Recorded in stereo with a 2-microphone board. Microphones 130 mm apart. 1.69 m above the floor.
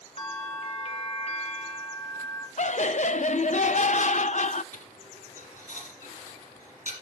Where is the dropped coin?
75° left (ahead or behind), 6 m.